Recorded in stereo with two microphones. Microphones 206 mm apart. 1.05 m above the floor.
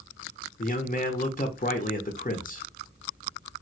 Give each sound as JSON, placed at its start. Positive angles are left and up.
{"t": 0.6, "sound": "a man speaking", "side_deg": 40, "distance_m": 0.7}